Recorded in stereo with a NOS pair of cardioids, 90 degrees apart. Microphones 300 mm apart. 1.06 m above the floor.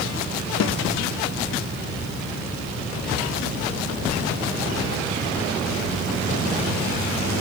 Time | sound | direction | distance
0.6 | a snare drum | 60° left | 2 m